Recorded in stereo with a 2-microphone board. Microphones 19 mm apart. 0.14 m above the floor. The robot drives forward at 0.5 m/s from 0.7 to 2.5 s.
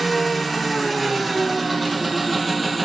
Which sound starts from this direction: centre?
An engine running, at 0.0 s.